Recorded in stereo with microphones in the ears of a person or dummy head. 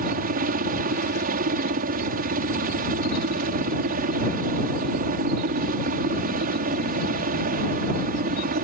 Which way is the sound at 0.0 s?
45° right (ahead or behind).